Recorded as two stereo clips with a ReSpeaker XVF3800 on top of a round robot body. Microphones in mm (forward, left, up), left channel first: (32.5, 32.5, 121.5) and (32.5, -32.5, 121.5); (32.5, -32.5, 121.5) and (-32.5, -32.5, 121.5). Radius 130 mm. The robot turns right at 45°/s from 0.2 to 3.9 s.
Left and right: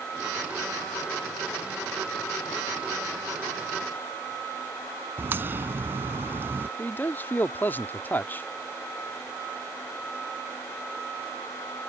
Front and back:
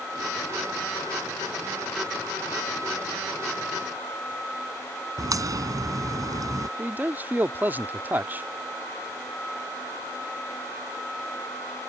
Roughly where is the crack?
Behind right.